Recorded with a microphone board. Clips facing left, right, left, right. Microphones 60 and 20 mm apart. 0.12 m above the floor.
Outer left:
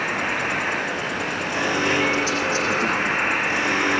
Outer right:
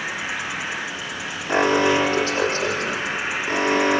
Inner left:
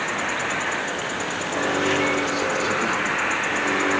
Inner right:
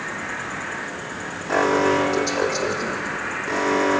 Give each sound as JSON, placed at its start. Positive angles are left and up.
{"t": 0.0, "sound": "an insect", "side_deg": 50, "distance_m": 2.5}
{"t": 1.5, "sound": "an alarm", "side_deg": -45, "distance_m": 10.0}